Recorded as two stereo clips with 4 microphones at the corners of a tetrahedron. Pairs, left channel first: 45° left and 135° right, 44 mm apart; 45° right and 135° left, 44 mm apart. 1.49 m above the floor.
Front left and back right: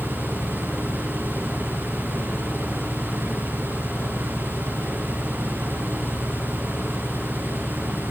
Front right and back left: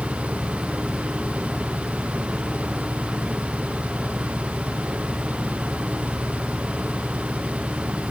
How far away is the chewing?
I don't hear chewing.